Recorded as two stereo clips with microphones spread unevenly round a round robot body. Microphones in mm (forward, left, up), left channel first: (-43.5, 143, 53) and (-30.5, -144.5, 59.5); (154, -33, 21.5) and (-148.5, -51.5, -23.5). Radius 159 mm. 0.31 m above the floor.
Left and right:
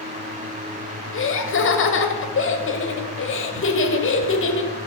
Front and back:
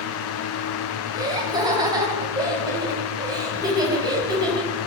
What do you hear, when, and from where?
1.1 s laughter: 115° left, 1.9 m